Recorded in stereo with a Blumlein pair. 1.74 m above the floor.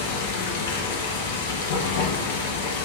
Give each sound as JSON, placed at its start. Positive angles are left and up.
{"t": 0.0, "sound": "running water", "azimuth_deg": 60, "distance_m": 2.0}